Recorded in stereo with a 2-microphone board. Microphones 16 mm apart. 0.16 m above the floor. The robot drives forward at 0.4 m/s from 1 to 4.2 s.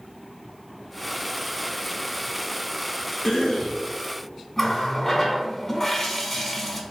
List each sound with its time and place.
3.2 s a cough: 45° left (ahead or behind), 1.7 m
4.6 s a running tap: 20° left (ahead or behind), 0.7 m